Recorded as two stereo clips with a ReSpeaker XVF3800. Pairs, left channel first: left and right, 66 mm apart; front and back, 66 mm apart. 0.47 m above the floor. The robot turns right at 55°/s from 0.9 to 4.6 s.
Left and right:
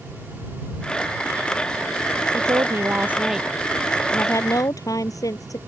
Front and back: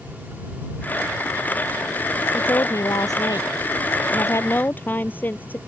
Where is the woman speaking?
60° right; by 5.6 s 65° left.